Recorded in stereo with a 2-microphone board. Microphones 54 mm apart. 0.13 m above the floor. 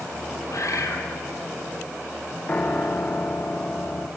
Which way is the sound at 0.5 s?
70° left (ahead or behind).